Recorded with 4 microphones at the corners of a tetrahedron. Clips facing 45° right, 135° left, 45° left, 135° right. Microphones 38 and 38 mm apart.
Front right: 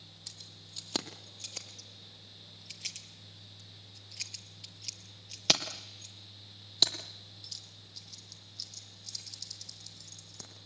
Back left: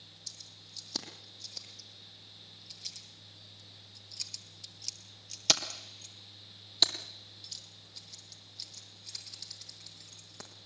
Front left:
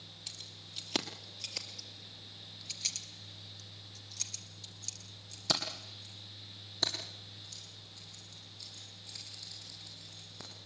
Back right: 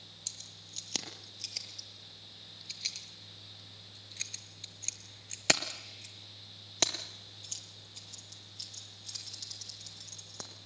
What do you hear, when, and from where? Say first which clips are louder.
0.3 s keys jangling: front right 1 dB, front left 2 dB; 20° right, 3.5 m; by 10.5 s 155° right, 5.5 m